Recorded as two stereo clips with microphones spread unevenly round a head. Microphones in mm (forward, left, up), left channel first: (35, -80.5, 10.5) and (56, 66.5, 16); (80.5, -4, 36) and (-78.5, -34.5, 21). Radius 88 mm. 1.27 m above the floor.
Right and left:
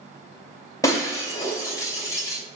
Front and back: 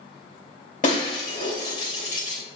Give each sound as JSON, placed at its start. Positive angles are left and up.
{"t": 0.8, "sound": "breaking glass", "azimuth_deg": -30, "distance_m": 2.5}